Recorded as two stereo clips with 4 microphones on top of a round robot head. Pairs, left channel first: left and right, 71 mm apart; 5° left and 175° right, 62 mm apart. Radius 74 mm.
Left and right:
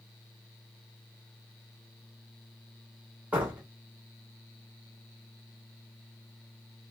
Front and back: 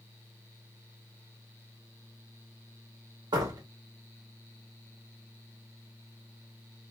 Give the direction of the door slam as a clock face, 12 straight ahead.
6 o'clock.